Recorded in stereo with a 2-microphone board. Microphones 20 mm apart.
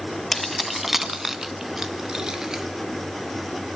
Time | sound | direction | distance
0.3 | keys jangling | 5° left (ahead or behind) | 0.8 m